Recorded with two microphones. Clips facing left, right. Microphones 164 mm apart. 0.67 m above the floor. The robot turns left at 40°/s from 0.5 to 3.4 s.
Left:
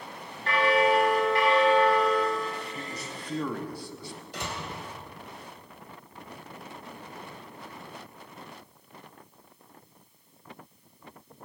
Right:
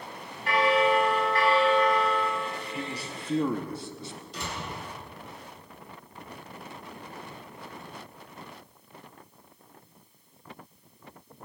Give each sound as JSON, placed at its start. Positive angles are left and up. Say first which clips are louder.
{"t": 0.5, "sound": "a bell", "louder": "even", "azimuth_deg": -170, "distance_m": 3.0}
{"t": 2.8, "sound": "a man speaking", "louder": "right 3 dB", "side_deg": -35, "distance_m": 0.7}
{"t": 4.3, "sound": "a door slam", "louder": "left 1 dB", "side_deg": 70, "distance_m": 3.0}